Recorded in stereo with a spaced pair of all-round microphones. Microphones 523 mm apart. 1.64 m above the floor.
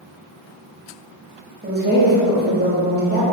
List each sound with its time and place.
1.6 s a woman speaking: 20° right (ahead or behind), 1.0 m